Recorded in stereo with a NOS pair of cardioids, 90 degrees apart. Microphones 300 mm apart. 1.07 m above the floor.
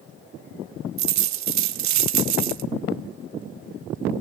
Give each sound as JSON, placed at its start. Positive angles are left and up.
{"t": 1.0, "sound": "a dropped coin", "azimuth_deg": -70, "distance_m": 1.1}